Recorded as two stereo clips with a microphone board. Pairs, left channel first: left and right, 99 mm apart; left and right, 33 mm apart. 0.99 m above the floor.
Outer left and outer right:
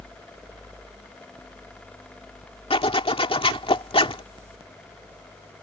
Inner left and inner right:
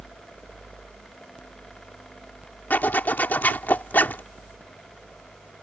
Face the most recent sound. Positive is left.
turn(degrees=70)  # may be behind; listen again after turning